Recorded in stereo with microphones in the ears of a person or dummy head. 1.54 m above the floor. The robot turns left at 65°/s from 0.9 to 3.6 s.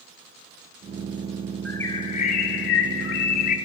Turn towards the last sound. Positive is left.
turn(degrees=50)